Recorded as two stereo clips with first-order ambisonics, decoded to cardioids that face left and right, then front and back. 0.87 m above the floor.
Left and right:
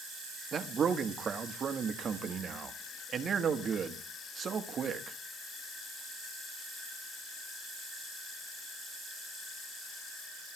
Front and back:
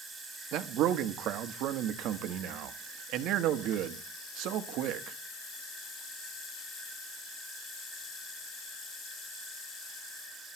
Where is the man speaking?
150° right, 1.4 m.